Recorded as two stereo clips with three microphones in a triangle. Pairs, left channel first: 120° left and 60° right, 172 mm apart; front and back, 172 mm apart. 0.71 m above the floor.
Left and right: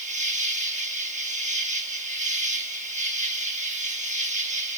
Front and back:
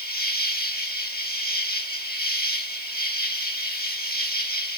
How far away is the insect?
About 1.4 m.